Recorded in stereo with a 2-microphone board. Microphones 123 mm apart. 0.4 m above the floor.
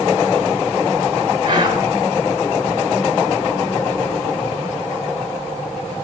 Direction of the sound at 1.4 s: 35° right (ahead or behind).